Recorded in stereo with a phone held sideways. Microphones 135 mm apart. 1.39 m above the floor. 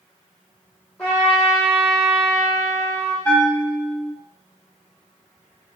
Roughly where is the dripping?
I don't hear dripping.